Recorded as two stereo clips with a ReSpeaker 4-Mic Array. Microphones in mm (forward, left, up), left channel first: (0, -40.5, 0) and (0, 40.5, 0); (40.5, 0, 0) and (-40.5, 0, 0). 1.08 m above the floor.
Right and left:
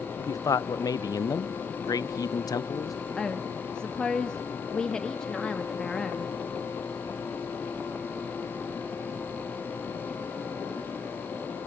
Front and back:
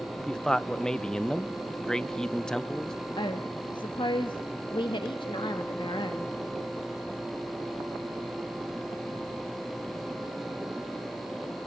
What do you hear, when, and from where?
0.2 s a man speaking: 80° right, 0.7 m
3.2 s a woman speaking: 10° right, 1.4 m